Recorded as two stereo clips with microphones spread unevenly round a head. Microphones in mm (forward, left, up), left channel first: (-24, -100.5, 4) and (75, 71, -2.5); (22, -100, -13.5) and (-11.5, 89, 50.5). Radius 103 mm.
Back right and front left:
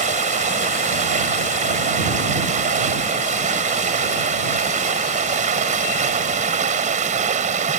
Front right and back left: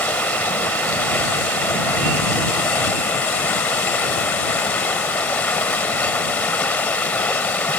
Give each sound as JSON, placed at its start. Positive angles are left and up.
{"t": 0.0, "sound": "running water", "azimuth_deg": 5}